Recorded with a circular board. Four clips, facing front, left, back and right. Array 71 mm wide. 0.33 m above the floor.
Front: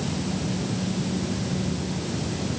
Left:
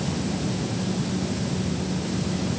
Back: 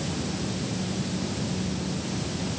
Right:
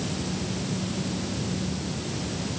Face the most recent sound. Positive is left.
No sound to turn to.